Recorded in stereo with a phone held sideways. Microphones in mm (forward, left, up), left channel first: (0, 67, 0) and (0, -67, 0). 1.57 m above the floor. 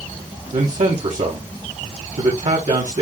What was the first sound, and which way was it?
A man speaking, 85° right.